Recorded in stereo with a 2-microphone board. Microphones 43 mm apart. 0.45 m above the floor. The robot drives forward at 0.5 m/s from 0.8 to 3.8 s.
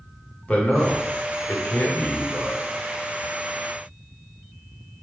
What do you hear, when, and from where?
0.5 s a man speaking: 35° left (ahead or behind), 1.1 m; by 2.6 s 40° left (ahead or behind), 1.0 m